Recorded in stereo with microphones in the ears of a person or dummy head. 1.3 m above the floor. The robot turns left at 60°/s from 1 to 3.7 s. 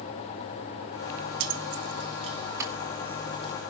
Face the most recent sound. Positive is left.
turn(degrees=50)  # may be behind; listen again after turning